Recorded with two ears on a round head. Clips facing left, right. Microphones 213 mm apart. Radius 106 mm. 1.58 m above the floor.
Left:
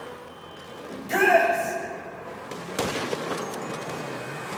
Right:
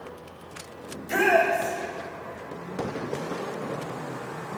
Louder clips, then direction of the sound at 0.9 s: Left 2 dB; 10° right (ahead or behind).